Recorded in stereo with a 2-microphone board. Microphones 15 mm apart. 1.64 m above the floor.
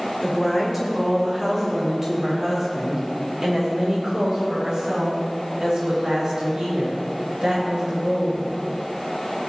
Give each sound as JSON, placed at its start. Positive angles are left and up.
{"t": 0.2, "sound": "a woman speaking", "side_deg": -5, "distance_m": 4.5}